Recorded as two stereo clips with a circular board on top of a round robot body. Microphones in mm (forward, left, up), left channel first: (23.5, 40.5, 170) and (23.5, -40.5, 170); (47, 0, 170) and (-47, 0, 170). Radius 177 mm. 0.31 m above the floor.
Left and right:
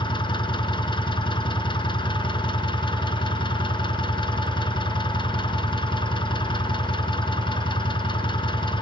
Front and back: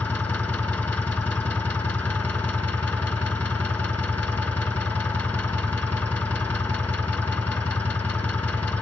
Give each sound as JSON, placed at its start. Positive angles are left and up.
{"t": 0.0, "sound": "an engine running", "azimuth_deg": 70, "distance_m": 3.0}